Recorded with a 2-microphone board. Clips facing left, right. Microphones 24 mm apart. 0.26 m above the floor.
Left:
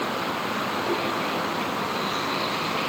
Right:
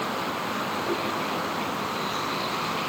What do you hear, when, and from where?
0.0 s a vehicle: 5° left (ahead or behind); by 2.9 s 10° left (ahead or behind)